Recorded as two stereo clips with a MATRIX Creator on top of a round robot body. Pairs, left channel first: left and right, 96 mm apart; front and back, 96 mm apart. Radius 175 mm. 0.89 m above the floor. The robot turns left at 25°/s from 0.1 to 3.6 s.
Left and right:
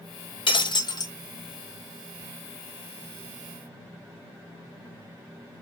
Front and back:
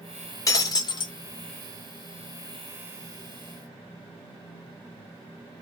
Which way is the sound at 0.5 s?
55° left.